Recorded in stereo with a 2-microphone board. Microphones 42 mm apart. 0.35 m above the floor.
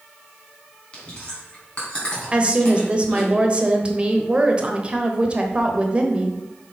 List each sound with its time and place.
0.9 s chewing: 25° left (ahead or behind), 3 m
2.3 s a woman speaking: 30° right (ahead or behind), 1.1 m